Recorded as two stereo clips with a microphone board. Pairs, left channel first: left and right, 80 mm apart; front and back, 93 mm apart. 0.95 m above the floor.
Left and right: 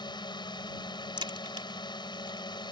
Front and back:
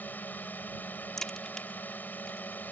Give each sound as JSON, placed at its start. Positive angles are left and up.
{"t": 0.0, "sound": "a drone", "azimuth_deg": 70}
{"t": 1.2, "sound": "a crack", "azimuth_deg": -85}